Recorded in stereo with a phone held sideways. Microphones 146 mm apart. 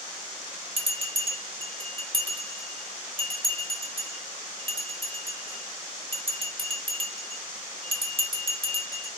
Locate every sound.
0.8 s a bell: 40° right (ahead or behind), 2 m